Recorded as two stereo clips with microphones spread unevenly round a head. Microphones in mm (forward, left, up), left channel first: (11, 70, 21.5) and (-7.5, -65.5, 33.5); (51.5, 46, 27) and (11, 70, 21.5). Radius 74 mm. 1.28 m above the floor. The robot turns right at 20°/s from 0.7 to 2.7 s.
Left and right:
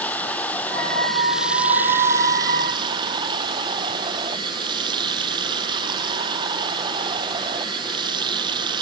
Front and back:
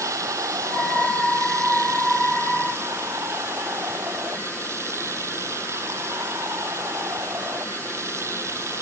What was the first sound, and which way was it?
Running water, 160° left.